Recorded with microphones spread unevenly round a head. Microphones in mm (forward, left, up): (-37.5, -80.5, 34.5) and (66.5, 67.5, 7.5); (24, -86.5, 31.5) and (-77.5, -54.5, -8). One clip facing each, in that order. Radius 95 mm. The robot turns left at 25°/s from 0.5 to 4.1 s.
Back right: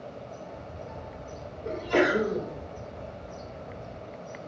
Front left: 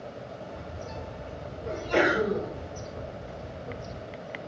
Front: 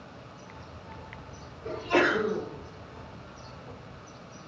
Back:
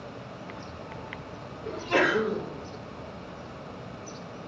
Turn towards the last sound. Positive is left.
turn(degrees=-140)